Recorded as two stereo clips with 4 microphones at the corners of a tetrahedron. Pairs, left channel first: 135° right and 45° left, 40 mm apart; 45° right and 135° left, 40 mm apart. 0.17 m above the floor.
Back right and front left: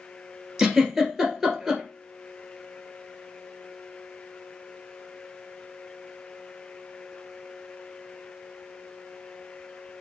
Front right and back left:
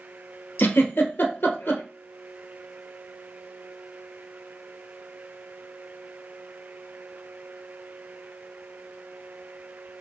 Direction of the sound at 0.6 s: 40° right.